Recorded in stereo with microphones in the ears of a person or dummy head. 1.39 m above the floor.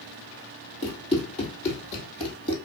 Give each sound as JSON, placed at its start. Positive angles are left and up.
{"t": 0.8, "sound": "running footsteps", "side_deg": 35, "distance_m": 1.9}